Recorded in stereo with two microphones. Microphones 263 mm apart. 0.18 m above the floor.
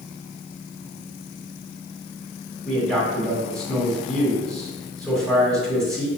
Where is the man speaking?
Centre (ahead or behind), 1.9 m.